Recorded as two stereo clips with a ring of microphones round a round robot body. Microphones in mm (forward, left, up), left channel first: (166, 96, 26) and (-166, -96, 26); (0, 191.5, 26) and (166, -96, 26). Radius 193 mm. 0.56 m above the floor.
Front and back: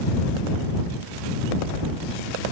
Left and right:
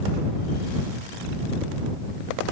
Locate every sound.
Only background noise.